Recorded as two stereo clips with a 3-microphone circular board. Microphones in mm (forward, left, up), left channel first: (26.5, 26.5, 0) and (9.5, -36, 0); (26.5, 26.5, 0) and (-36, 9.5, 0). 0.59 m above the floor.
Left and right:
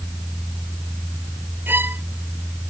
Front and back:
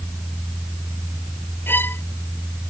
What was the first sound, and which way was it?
A violin, 45° right.